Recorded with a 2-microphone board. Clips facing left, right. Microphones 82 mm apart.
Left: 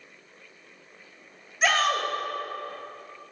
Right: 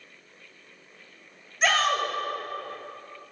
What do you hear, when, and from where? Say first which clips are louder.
1.6 s a shout: even; centre (ahead or behind), 1.6 m